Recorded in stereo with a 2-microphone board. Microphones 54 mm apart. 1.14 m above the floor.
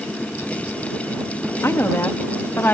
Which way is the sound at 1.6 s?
50° left (ahead or behind).